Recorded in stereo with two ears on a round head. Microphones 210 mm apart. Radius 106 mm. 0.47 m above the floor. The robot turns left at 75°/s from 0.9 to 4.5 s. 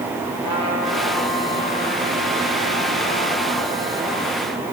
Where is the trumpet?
75° right, 6.5 m; by 4.5 s 15° left, 6.5 m.